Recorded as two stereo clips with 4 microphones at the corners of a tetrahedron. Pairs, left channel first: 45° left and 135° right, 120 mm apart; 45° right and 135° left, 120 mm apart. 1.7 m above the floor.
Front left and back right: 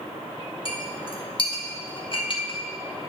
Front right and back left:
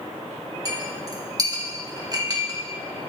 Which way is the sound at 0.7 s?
80° left.